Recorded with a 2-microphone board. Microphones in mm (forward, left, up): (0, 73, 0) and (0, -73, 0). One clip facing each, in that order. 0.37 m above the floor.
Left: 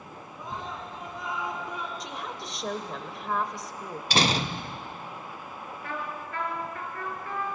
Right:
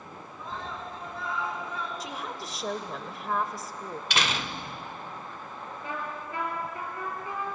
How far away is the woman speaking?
About 1.2 m.